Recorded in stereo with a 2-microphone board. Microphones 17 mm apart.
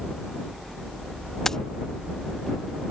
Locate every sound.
1.4 s keys jangling: 30° left (ahead or behind)